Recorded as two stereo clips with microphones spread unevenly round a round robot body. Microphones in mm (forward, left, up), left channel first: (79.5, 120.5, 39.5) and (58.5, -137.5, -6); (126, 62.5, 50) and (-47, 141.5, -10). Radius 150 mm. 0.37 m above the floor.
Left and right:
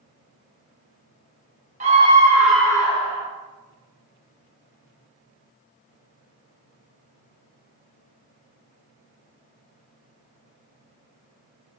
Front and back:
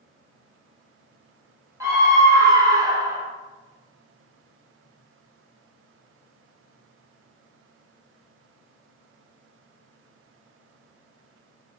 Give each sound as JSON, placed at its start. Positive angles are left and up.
{"t": 1.8, "sound": "a scream", "azimuth_deg": -145, "distance_m": 1.7}